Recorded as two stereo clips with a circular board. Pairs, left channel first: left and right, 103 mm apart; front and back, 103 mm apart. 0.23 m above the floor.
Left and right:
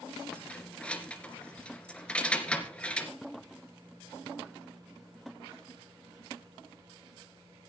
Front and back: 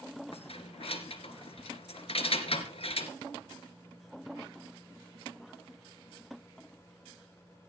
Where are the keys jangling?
10° left, 2 m.